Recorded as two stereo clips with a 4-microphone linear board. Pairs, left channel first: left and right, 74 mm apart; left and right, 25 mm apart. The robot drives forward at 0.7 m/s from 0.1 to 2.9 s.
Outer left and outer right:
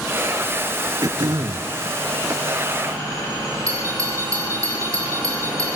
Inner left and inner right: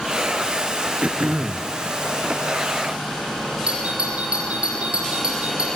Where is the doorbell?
45° right (ahead or behind), 8.5 m.